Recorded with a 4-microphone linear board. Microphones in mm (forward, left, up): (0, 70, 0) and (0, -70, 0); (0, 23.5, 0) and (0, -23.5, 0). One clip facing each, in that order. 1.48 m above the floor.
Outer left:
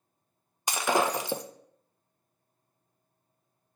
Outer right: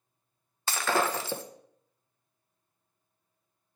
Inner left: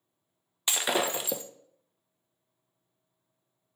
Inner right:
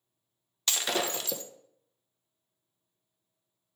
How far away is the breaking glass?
About 0.6 m.